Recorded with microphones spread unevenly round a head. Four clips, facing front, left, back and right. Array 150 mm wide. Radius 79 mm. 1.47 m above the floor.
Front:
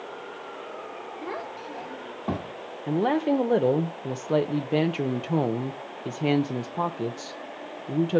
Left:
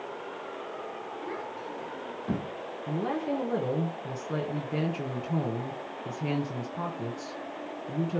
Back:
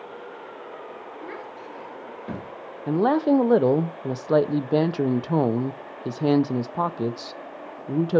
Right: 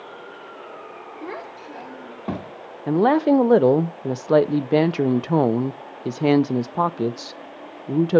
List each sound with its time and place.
1.2 s a child speaking: 60° right, 2 m
2.9 s a woman speaking: 100° right, 0.6 m